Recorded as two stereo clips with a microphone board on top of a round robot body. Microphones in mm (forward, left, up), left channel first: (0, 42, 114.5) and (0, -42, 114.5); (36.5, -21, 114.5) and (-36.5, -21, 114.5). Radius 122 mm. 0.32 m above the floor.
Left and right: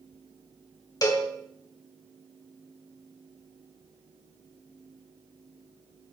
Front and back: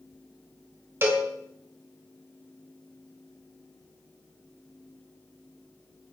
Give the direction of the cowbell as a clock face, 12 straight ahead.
8 o'clock.